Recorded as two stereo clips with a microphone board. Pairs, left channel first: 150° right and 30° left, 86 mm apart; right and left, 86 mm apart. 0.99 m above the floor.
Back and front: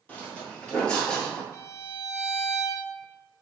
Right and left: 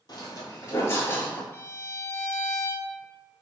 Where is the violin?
125° right, 0.6 m.